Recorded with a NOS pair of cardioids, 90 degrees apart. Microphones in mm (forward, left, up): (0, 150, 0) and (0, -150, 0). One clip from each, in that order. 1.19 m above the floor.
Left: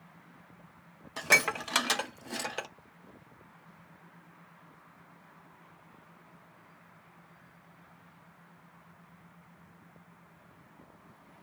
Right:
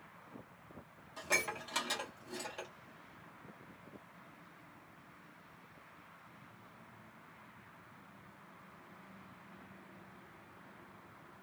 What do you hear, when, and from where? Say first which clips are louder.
1.2 s dishes clattering: left 10 dB; 65° left, 0.5 m